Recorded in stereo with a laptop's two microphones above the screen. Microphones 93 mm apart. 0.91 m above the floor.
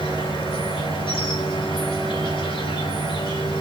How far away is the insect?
About 4 m.